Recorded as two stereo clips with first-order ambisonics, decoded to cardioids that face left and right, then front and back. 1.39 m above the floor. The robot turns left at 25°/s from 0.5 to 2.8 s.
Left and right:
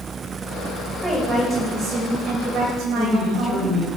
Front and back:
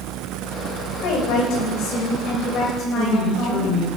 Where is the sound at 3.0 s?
20° right, 8 m.